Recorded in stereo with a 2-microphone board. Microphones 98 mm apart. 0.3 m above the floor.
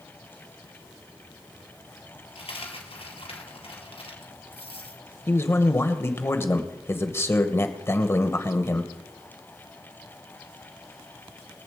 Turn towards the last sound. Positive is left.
turn(degrees=25)  # may be behind; listen again after turning